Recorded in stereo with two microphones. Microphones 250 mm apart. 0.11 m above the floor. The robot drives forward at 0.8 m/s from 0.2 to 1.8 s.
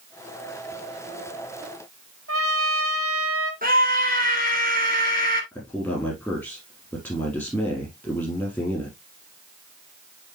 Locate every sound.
2.3 s a trumpet: 65° right (ahead or behind), 1.3 m
3.6 s a scream: 35° right (ahead or behind), 1.7 m
5.5 s a man speaking: 10° left (ahead or behind), 3.5 m